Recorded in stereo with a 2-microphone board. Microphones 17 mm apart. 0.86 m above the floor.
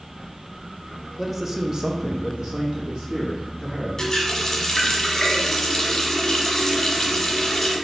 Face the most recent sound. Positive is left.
turn(degrees=25)  # may be behind; listen again after turning